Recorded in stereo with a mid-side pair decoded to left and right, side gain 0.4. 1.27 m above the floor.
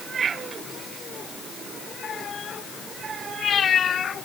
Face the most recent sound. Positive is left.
No sound to turn to.